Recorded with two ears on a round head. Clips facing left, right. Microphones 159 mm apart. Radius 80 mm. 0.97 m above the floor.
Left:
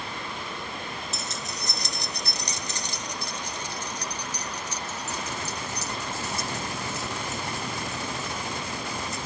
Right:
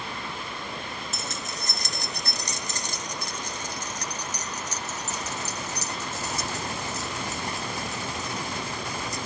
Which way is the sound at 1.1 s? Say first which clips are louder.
Even; 45° right (ahead or behind).